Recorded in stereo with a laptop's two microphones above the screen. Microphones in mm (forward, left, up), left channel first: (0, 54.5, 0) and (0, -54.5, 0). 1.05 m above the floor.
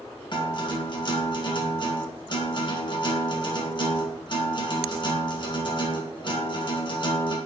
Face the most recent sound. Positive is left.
turn(degrees=45)  # may be behind; listen again after turning